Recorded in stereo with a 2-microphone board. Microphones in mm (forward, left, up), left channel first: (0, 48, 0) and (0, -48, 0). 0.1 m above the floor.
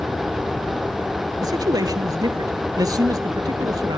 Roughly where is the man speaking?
Right.